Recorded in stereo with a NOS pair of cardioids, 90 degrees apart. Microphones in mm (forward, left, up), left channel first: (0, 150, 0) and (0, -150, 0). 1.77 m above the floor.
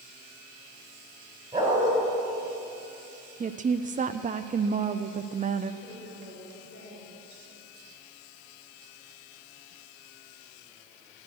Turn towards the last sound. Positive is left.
turn(degrees=35)